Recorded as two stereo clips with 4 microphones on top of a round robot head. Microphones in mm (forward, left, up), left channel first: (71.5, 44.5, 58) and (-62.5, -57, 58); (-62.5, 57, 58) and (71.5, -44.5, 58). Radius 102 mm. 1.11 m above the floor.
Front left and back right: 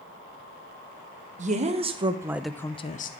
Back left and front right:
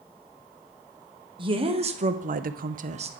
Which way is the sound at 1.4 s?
100° right.